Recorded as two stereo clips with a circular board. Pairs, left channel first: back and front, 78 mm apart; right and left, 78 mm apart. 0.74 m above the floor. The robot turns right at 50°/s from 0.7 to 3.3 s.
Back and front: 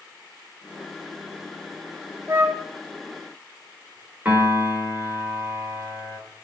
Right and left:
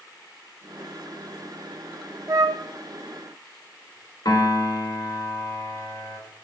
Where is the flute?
50° left, 1.0 m; by 2.6 s 70° left, 1.0 m.